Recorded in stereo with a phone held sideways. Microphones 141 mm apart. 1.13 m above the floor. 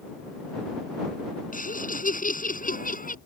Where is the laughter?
80° left.